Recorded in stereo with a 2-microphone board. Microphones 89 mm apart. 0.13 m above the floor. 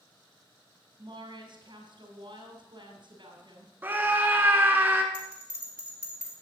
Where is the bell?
15° right (ahead or behind), 3 m.